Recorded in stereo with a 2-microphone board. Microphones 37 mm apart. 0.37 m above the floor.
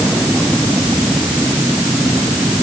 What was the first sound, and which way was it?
Only background noise.